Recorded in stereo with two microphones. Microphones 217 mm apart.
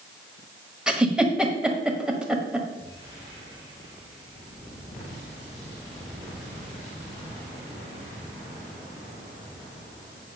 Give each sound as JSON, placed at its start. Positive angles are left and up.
{"t": 0.9, "sound": "a giggle", "side_deg": -5, "distance_m": 1.3}